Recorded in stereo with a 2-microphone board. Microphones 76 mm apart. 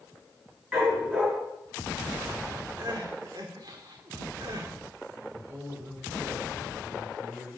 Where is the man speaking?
45° right (ahead or behind), 4 m.